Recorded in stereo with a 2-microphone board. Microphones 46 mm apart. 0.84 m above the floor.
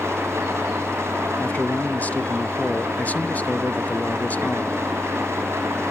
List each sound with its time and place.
0.0 s an engine running: 80° right, 4.5 m
1.4 s a man speaking: 35° left (ahead or behind), 0.8 m